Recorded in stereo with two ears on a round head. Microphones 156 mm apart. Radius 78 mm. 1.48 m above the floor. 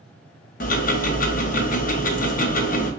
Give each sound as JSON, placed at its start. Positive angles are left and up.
{"t": 0.6, "sound": "ticking", "side_deg": 50, "distance_m": 0.6}